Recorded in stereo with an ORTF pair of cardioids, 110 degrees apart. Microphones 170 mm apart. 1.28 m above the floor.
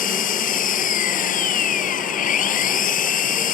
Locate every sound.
0.0 s an engine running: 55° left